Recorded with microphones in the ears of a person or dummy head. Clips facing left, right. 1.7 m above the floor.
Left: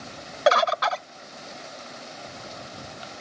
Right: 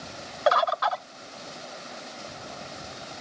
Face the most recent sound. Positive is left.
turn(degrees=30)  # may be behind; listen again after turning